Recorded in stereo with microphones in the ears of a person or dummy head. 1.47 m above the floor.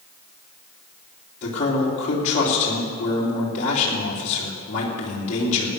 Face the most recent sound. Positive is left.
turn(degrees=35)  # may be behind; listen again after turning